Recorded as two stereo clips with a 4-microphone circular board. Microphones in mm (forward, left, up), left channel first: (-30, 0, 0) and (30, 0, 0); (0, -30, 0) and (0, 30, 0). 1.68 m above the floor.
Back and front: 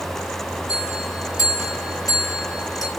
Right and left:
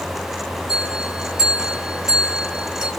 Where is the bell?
165° left, 5.5 m.